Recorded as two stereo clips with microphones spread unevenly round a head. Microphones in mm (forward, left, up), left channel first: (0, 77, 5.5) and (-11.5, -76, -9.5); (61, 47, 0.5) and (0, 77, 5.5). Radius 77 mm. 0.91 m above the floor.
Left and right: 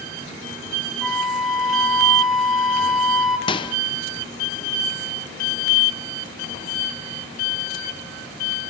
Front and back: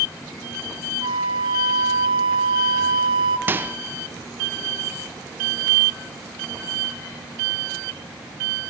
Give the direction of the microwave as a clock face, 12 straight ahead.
8 o'clock.